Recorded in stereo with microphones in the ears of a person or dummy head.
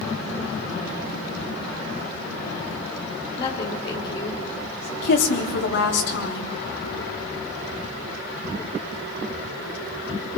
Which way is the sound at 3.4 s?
30° left (ahead or behind).